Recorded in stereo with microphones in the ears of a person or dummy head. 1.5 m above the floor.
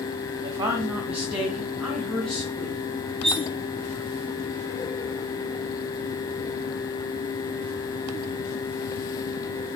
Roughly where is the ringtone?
No ringtone in this recording.